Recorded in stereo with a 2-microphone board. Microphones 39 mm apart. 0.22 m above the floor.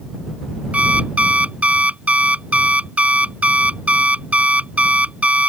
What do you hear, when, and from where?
0.7 s an alarm clock: 35° right (ahead or behind)